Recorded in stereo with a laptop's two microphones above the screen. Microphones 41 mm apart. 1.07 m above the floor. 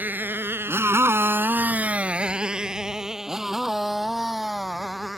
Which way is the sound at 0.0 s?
50° right (ahead or behind).